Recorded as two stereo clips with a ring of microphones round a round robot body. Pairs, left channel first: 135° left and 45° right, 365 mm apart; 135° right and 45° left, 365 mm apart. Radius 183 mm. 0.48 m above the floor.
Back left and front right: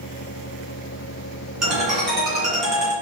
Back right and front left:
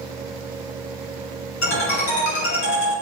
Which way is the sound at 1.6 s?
135° right.